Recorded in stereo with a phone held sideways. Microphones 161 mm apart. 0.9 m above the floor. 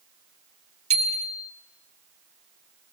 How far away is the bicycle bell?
About 2 m.